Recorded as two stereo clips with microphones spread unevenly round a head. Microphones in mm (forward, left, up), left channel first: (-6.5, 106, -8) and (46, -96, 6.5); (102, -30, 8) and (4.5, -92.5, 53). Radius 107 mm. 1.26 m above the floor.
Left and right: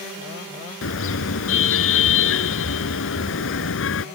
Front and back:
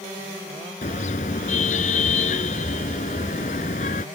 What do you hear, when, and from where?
0.8 s a car horn: 80° left